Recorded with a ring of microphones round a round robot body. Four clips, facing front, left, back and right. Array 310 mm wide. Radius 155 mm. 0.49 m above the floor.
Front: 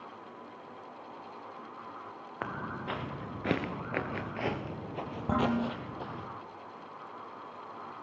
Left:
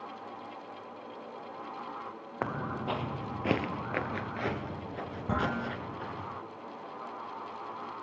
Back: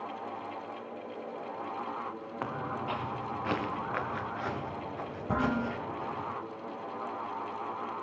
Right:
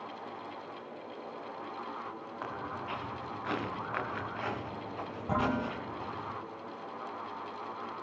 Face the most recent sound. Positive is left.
turn(degrees=25)